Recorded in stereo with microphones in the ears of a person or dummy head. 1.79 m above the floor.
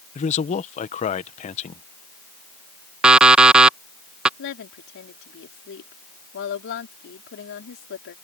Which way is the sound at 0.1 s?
40° left (ahead or behind).